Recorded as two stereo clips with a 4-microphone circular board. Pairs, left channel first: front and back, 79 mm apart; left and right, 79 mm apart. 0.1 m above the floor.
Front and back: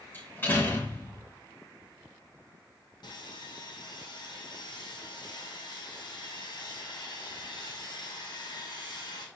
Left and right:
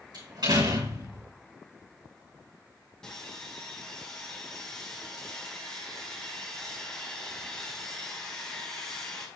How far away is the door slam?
About 6 m.